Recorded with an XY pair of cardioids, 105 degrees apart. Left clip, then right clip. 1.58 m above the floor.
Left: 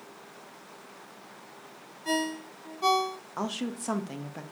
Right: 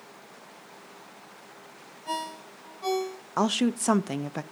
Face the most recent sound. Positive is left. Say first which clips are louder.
# right 9 dB
turn(degrees=-55)